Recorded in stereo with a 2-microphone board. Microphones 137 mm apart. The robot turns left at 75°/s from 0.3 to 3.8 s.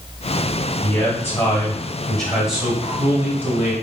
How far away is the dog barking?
I don't hear a dog barking.